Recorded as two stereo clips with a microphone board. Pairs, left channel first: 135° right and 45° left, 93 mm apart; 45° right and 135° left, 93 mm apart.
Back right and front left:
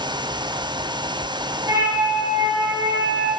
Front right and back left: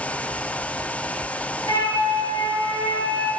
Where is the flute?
Straight ahead, 4.5 m.